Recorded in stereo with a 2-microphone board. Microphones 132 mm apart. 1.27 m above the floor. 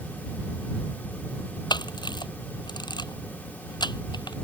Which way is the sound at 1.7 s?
35° left (ahead or behind).